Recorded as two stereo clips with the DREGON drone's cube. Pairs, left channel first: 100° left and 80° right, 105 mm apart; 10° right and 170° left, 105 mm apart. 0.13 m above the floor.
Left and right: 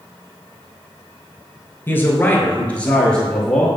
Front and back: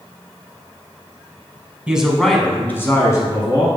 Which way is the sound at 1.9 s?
110° left.